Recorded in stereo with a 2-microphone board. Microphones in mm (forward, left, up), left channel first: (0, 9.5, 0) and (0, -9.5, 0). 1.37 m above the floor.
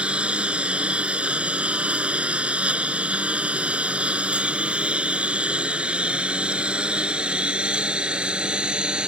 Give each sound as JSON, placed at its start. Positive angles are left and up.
{"t": 0.0, "sound": "a lawn mower", "side_deg": -65}